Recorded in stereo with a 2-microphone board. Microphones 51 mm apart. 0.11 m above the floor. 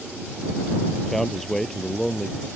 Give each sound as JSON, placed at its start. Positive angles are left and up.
{"t": 1.0, "sound": "a man speaking", "side_deg": 5}